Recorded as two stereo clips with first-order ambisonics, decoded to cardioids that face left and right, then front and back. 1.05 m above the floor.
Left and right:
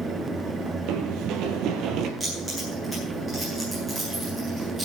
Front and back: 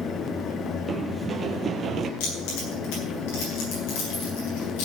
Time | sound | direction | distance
0.9 | running footsteps | 100° right | 1.8 m
2.2 | keys jangling | 5° right | 9.5 m